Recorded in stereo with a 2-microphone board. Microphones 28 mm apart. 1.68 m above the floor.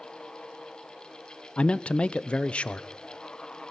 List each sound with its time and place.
1.6 s a man speaking: 40° left (ahead or behind), 0.6 m